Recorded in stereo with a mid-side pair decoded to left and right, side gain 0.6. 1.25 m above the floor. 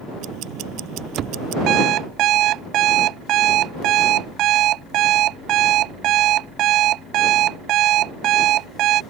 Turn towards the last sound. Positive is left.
turn(degrees=-60)